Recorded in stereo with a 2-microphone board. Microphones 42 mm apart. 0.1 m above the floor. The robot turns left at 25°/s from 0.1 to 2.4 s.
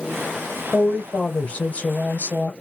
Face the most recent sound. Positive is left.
turn(degrees=90)